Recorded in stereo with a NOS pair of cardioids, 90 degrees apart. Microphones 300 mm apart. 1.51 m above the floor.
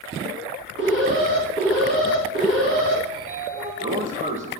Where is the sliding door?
25° right, 1.2 m.